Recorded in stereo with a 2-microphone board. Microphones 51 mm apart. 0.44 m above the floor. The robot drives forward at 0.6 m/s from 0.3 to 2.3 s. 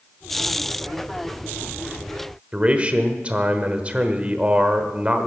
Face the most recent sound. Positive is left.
turn(degrees=-25)  # may be behind; listen again after turning